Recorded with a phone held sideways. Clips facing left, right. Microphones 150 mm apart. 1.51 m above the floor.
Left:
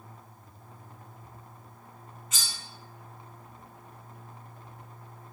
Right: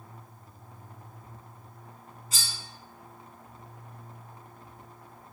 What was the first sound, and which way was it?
Cutlery clinking, 35° right (ahead or behind).